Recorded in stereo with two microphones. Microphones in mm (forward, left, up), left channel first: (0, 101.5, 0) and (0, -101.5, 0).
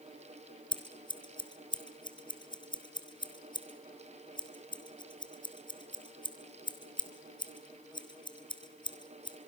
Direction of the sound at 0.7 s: 25° left (ahead or behind).